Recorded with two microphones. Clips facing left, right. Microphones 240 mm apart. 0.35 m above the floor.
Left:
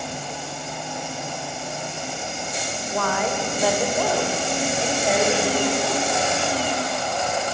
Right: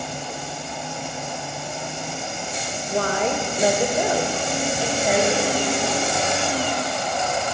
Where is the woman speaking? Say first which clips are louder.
Right 3 dB; 35° right (ahead or behind), 1.0 m; by 6.4 s 5° left (ahead or behind), 1.8 m.